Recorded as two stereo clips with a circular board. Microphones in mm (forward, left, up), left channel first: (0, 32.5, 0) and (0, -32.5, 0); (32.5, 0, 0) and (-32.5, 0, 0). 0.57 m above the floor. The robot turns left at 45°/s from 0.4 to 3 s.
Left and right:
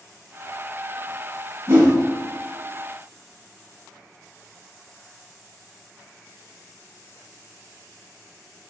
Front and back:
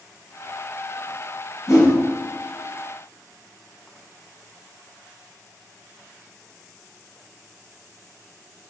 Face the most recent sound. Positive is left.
turn(degrees=-95)